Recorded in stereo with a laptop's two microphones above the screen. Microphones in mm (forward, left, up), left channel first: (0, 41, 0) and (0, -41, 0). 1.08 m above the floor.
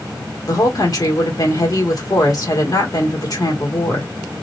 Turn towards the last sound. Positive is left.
turn(degrees=50)  # may be behind; listen again after turning